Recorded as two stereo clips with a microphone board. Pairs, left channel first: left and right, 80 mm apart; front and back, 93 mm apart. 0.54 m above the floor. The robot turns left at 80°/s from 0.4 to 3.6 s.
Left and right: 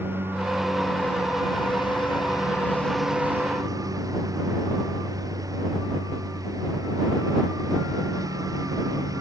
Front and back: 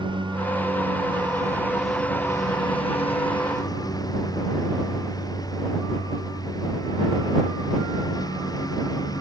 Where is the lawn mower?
150° right; by 9.2 s 50° right.